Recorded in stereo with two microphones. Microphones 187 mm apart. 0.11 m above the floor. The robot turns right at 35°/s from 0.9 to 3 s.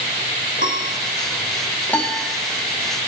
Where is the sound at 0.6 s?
70° left (ahead or behind), 2.5 m; by 1.0 s 75° left (ahead or behind), 2.5 m.